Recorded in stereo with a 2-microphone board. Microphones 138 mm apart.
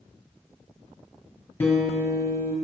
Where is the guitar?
15° left (ahead or behind), 2.5 m.